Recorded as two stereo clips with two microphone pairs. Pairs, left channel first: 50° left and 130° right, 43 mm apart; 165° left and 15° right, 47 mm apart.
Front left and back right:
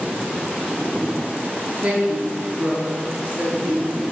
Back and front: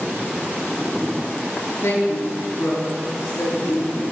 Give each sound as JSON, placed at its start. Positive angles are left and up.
{"t": 1.8, "sound": "a woman speaking", "azimuth_deg": 160, "distance_m": 2.5}